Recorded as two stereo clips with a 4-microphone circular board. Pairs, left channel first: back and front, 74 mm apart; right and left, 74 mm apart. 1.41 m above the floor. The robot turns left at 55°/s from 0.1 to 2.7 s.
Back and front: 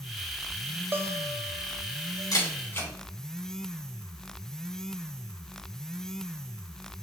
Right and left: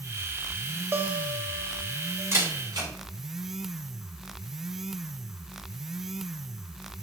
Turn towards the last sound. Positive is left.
turn(degrees=120)